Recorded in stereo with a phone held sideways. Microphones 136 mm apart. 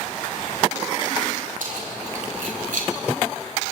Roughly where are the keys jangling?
Right.